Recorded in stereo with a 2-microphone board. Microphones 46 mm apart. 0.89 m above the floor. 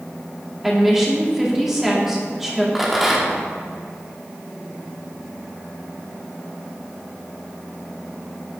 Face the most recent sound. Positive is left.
turn(degrees=-5)  # may be behind; listen again after turning